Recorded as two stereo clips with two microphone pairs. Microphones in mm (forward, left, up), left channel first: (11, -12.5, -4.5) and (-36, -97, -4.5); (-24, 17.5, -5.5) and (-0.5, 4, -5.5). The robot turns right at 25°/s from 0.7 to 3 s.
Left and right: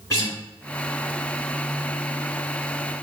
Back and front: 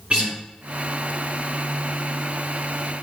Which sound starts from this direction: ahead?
A guitar, at 0.1 s.